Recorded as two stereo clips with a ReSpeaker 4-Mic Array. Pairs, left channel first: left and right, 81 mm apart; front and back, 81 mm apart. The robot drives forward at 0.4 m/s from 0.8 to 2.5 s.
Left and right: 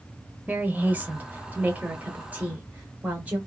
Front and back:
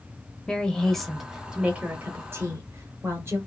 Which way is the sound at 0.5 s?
70° right.